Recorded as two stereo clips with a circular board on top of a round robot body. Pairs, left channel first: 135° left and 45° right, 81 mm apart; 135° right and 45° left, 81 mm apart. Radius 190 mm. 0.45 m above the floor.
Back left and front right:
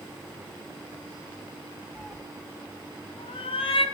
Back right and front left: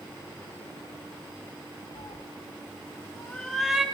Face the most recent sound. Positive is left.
turn(degrees=125)